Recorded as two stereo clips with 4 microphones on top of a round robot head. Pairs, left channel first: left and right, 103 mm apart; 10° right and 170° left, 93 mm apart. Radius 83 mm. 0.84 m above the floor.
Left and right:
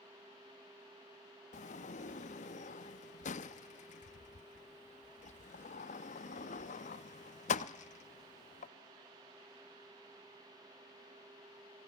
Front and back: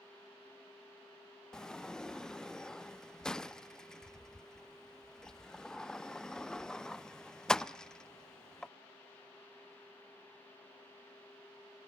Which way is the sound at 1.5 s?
75° left.